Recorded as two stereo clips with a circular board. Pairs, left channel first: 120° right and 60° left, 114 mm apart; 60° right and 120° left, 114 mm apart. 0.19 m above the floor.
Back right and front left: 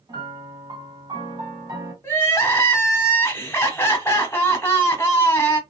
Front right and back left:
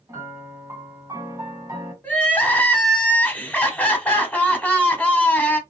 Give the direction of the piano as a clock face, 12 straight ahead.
9 o'clock.